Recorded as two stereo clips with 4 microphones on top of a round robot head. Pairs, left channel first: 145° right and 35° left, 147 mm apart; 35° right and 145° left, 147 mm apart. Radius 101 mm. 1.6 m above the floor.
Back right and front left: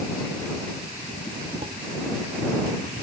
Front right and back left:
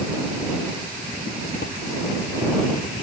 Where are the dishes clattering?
20° right.